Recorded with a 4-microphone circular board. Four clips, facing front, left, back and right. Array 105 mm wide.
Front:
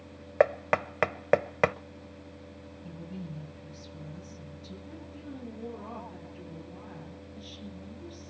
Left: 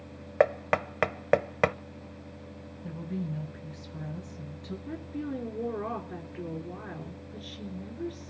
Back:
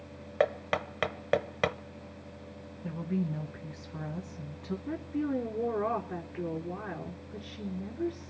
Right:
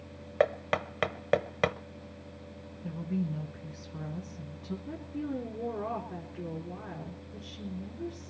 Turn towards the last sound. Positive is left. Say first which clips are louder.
# left 1 dB, back 14 dB
turn(degrees=170)